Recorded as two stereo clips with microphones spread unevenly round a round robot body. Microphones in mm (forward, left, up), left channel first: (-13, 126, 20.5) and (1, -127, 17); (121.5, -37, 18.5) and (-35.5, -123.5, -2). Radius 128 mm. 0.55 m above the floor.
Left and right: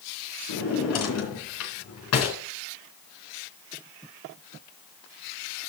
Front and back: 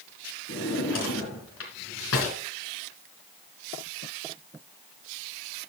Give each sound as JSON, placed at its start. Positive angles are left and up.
{"t": 0.5, "sound": "a drawer", "azimuth_deg": 60, "distance_m": 3.0}